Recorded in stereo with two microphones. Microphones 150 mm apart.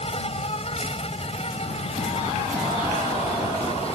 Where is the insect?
45° left (ahead or behind).